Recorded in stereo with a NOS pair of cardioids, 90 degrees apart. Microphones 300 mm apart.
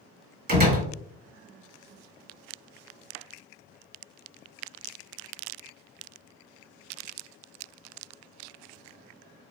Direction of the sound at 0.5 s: 30° right.